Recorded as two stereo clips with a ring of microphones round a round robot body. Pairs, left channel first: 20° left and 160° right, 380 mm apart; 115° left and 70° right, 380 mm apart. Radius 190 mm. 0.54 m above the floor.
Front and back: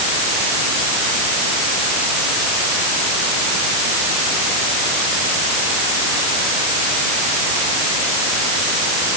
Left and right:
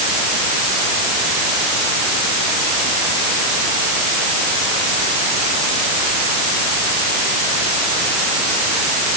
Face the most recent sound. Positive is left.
No sound to turn to.